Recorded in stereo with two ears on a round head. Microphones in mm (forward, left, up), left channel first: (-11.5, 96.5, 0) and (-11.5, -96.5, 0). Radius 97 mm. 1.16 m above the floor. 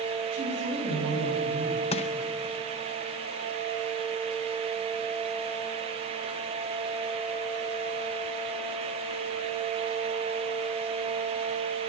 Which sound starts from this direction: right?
A woman speaking, at 0.3 s.